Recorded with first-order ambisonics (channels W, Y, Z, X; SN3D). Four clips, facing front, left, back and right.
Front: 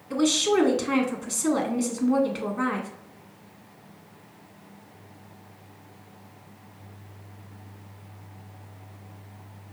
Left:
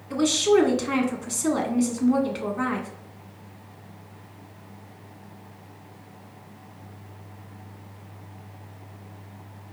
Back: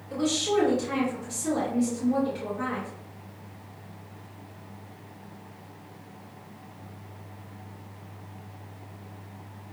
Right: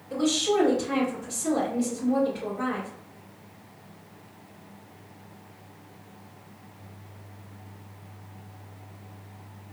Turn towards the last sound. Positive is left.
turn(degrees=50)